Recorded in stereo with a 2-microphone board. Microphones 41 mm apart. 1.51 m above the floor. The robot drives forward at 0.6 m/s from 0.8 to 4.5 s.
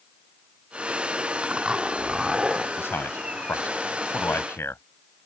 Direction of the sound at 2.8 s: 85° left.